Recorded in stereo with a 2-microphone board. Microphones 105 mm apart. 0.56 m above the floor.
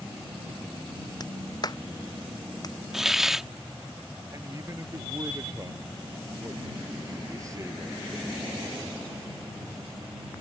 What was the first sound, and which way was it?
A clap, 40° left (ahead or behind).